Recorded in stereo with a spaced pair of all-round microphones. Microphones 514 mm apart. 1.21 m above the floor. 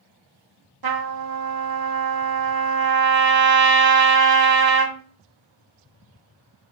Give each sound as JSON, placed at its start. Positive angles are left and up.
{"t": 0.8, "sound": "a trumpet", "side_deg": -45, "distance_m": 0.5}